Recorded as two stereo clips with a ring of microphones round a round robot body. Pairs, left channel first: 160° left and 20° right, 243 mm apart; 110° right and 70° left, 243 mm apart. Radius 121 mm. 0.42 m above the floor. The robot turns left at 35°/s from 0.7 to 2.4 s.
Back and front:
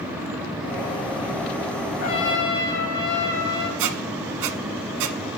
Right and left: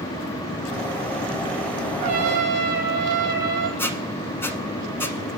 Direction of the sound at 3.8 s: 30° right.